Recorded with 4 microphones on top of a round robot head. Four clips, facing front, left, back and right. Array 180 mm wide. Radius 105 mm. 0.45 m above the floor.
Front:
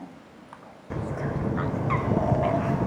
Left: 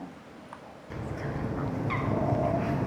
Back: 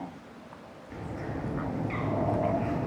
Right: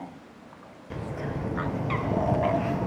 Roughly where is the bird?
Ahead.